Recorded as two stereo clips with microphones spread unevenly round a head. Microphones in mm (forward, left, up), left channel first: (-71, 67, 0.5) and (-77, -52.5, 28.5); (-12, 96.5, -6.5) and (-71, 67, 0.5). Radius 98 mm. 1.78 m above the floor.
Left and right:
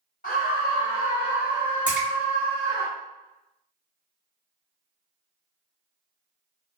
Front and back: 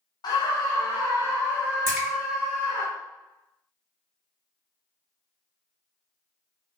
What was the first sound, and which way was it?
A scream, 40° left.